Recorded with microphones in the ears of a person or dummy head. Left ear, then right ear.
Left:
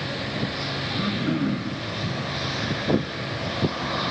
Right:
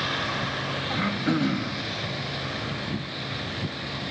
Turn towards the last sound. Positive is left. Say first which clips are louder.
# right 2 dB
turn(degrees=-75)  # may be behind; listen again after turning